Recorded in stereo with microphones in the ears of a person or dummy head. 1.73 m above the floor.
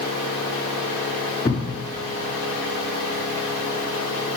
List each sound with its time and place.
1.4 s a thud: 25° left (ahead or behind), 2 m